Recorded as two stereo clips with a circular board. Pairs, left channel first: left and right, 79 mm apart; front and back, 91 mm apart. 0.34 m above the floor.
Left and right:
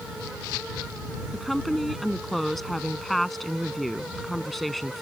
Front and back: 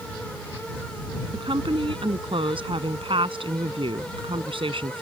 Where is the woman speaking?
Straight behind.